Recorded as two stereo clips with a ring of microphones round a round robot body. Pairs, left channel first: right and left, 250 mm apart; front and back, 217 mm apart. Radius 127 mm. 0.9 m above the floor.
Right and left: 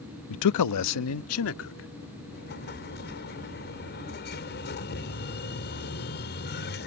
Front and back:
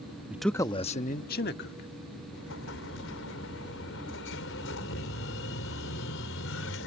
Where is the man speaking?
100° right; by 1.9 s 50° right.